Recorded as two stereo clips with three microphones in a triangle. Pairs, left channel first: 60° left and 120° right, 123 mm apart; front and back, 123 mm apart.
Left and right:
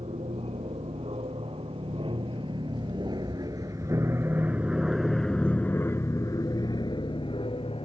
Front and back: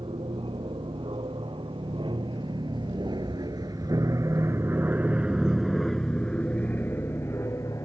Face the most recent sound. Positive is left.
turn(degrees=55)